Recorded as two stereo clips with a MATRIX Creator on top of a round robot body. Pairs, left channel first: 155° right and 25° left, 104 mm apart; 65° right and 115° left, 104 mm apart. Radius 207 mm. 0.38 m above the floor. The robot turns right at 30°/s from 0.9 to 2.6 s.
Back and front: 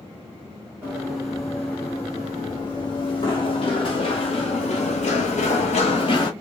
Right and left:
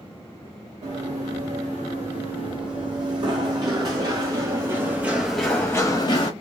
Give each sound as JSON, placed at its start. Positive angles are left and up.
{"t": 0.8, "sound": "running footsteps", "azimuth_deg": 100, "distance_m": 3.0}